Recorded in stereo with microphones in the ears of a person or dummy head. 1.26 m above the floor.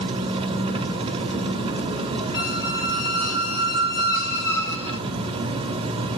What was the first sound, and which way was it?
An engine running, 25° right (ahead or behind).